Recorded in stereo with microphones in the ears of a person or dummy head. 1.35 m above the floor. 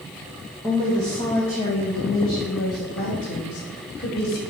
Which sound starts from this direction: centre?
A woman speaking, at 0.6 s.